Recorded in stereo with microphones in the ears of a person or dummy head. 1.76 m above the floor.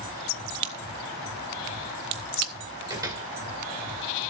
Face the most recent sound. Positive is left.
turn(degrees=-20)  # may be behind; listen again after turning